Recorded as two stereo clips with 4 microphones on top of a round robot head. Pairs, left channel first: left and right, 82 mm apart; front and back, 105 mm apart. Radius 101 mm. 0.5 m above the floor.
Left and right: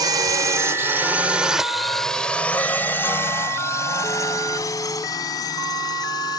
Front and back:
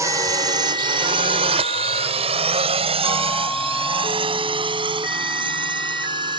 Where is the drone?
120° right; by 6.4 s 140° left.